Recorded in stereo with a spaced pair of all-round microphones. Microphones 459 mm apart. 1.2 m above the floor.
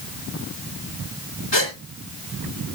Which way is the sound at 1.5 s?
65° left (ahead or behind).